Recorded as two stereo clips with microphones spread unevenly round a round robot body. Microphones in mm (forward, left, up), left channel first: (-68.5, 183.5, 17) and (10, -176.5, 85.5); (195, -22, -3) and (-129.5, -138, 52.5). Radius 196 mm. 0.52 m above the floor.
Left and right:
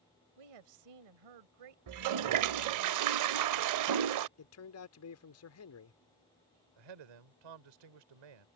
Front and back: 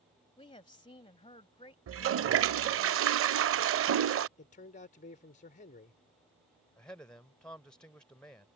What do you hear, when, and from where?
0.4 s a woman speaking: 55° right
1.9 s a toilet flushing: 110° right
4.4 s a man speaking: 80° left
6.8 s a man speaking: 65° right